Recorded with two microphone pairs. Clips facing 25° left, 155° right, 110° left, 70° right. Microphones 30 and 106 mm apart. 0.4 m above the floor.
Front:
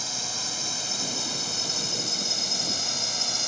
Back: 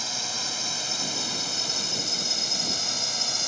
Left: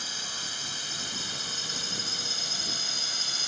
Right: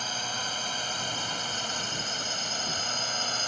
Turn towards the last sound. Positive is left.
turn(degrees=-65)